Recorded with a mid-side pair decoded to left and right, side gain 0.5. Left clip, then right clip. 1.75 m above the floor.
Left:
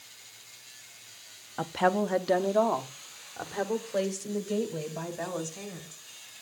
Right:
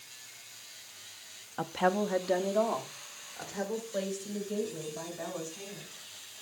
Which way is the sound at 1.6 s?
15° left.